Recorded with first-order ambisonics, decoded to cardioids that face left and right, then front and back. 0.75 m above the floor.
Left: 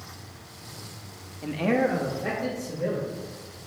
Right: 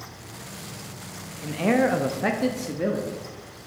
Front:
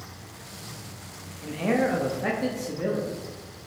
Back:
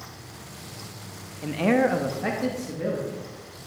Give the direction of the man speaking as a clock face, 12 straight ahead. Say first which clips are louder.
Right 2 dB, back 3 dB; 7 o'clock.